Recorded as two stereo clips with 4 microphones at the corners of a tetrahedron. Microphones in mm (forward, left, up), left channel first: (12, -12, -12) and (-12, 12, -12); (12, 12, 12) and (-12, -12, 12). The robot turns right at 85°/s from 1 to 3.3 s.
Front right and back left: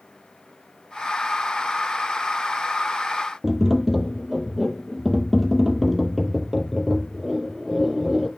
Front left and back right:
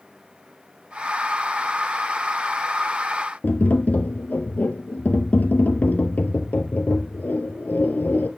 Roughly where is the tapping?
Ahead left.